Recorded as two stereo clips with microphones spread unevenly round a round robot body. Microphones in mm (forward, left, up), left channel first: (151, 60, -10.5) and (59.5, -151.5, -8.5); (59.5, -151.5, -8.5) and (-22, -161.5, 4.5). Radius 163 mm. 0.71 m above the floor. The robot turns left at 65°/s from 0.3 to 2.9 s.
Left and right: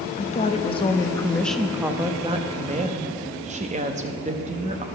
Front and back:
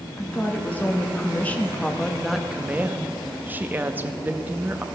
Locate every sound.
0.2 s a woman speaking: 60° left, 0.6 m; by 4.8 s 110° right, 0.6 m